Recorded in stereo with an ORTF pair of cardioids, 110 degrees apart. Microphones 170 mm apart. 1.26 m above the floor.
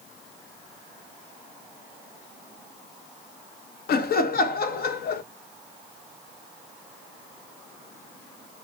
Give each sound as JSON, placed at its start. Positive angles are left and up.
{"t": 3.9, "sound": "laughter", "azimuth_deg": 60, "distance_m": 0.6}